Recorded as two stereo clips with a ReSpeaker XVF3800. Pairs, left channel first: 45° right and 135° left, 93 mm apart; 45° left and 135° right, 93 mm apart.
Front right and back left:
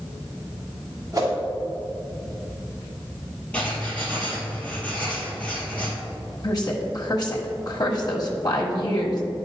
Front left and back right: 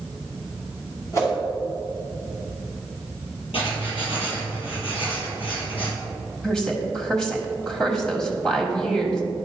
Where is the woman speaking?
35° right, 1.3 m.